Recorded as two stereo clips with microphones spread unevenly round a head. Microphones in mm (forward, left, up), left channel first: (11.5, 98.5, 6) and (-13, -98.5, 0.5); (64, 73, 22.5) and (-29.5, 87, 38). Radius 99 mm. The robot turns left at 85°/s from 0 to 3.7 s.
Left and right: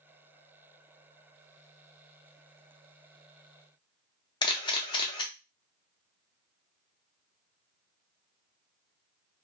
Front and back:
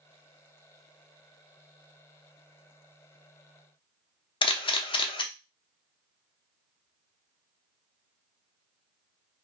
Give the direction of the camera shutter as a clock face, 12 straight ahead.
12 o'clock.